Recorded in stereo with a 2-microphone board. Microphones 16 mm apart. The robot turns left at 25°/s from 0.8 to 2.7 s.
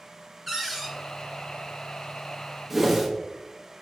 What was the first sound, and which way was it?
A cupboard door, 10° right (ahead or behind).